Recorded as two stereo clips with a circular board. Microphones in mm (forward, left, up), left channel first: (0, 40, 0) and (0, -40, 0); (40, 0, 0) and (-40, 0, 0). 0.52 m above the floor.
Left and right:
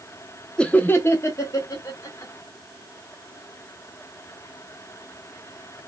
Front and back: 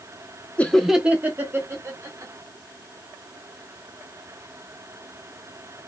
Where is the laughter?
30° left, 0.7 m; by 2.3 s 135° left, 1.7 m.